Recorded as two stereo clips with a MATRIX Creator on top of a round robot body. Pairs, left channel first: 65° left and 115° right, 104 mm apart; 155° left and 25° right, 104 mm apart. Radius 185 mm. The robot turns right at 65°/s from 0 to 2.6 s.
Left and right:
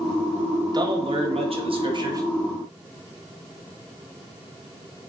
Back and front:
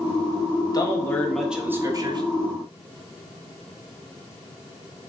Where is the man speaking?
155° right, 1.8 m; by 2.2 s 60° right, 1.8 m.